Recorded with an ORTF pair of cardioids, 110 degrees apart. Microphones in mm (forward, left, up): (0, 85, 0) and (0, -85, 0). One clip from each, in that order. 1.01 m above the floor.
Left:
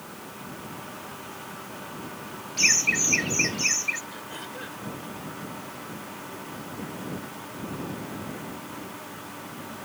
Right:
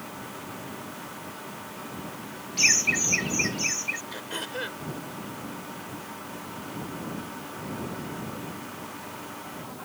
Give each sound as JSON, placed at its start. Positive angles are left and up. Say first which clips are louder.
{"t": 2.6, "sound": "laughter", "louder": "even", "azimuth_deg": -5}
{"t": 4.1, "sound": "throat clearing", "louder": "right 4 dB", "azimuth_deg": -45}